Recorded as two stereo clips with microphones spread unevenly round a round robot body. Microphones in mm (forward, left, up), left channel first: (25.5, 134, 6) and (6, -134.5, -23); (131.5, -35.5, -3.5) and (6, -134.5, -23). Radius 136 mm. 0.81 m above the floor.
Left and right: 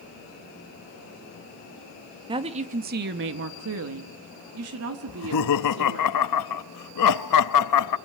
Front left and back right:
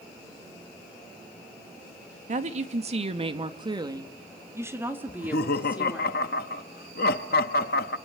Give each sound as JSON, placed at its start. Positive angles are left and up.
{"t": 2.3, "sound": "a woman speaking", "azimuth_deg": -160, "distance_m": 1.3}
{"t": 5.1, "sound": "laughter", "azimuth_deg": 80, "distance_m": 0.8}